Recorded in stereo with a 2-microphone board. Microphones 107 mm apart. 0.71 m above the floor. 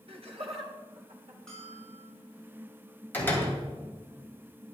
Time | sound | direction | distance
0.1 | laughter | 60° right (ahead or behind) | 1.5 m
1.5 | a bell | 5° left (ahead or behind) | 5.5 m
3.1 | a door slam | 20° left (ahead or behind) | 2.5 m